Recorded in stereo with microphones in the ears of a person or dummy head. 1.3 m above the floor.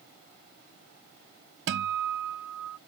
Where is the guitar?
60° right (ahead or behind).